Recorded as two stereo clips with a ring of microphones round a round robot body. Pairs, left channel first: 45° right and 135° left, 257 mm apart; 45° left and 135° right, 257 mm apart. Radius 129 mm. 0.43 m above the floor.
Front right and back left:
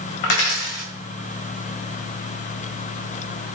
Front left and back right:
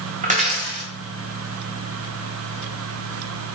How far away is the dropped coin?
About 1.9 m.